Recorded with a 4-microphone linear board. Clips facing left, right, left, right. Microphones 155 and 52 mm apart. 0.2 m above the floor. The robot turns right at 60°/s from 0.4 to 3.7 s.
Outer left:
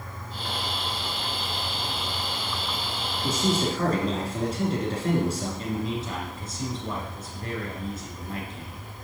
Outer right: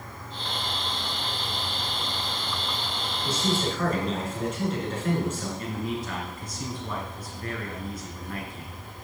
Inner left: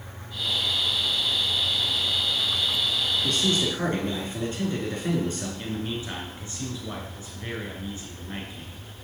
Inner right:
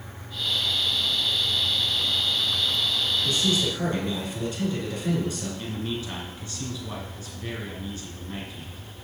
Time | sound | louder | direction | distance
3.2 | a man speaking | outer left 2 dB, even | 55° left (ahead or behind) | 2.5 m
5.6 | a man speaking | outer left 2 dB, even | 25° left (ahead or behind) | 2.5 m